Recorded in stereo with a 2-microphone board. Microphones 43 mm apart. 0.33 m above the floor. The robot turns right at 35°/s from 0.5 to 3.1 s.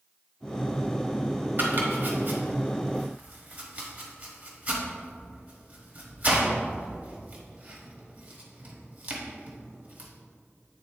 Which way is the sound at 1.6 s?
50° right (ahead or behind).